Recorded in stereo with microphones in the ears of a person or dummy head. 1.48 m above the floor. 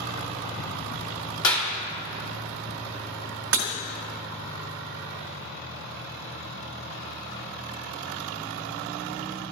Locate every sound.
1.4 s a clap: 85° left, 3 m
3.5 s breaking glass: 10° right (ahead or behind), 1.6 m